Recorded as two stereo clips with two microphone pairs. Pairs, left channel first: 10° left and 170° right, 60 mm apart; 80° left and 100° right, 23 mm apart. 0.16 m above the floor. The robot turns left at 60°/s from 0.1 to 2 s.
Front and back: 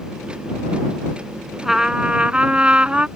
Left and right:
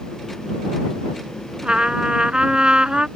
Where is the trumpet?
85° right; by 3.1 s 110° right.